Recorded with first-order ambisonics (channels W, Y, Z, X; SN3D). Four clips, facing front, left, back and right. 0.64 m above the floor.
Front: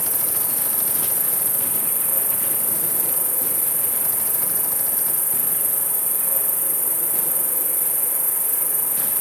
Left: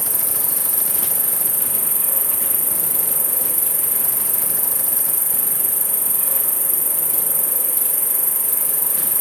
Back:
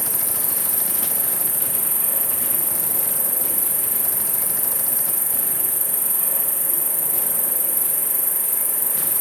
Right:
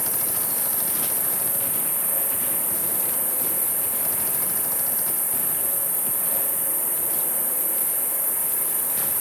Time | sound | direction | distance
0.0 | an insect | 110° left | 1.8 m